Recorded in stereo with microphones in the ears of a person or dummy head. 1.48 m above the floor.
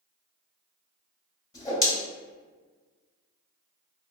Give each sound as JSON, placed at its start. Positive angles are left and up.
{"t": 1.5, "sound": "a whoosh", "side_deg": 20, "distance_m": 0.8}